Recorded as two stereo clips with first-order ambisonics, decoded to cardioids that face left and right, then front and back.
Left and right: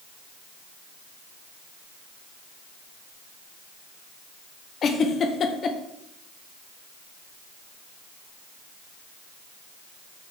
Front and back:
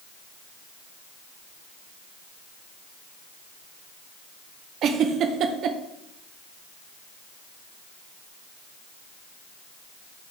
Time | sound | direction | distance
4.8 | a giggle | 145° left | 0.7 m